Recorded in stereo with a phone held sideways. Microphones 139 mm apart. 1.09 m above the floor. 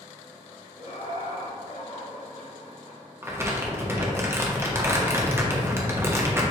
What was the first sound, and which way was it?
Laughter, 80° left.